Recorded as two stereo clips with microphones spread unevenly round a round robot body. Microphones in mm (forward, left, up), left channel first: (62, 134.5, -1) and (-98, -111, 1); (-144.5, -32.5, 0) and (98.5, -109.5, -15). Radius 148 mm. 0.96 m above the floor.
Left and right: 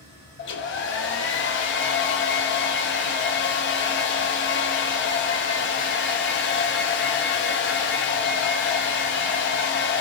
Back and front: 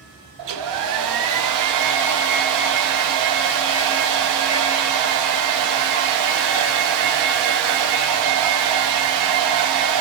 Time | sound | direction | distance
0.4 | a hair dryer | 5° left | 0.5 m